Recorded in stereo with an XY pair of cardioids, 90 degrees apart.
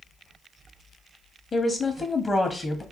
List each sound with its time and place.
1.5 s a woman speaking: 35° left, 0.7 m